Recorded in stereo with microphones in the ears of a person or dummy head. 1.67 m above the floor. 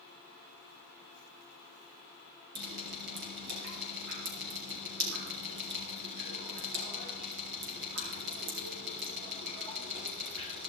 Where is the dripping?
65° right (ahead or behind), 5 m.